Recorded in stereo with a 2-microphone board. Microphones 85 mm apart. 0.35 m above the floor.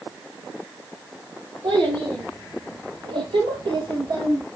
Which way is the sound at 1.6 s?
80° right.